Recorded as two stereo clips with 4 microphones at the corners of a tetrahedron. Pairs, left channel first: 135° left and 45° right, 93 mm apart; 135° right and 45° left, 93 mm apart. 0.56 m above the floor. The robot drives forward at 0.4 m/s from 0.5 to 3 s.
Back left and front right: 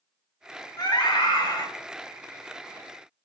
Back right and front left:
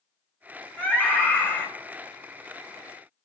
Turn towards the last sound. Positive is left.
turn(degrees=165)